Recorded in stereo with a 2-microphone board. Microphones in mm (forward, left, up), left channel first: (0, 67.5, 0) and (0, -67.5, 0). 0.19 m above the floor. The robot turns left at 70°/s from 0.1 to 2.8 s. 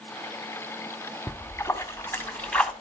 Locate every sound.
1.3 s a splash: 15° left (ahead or behind), 1.1 m; by 2.7 s 5° left (ahead or behind), 1.1 m